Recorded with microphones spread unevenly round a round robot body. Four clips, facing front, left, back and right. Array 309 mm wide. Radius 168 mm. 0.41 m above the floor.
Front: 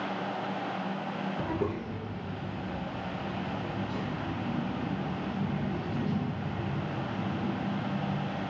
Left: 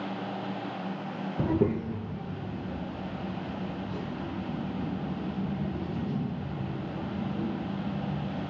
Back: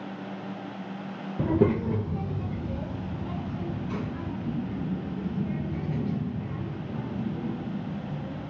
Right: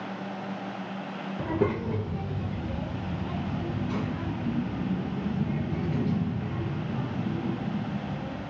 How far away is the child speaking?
About 0.6 m.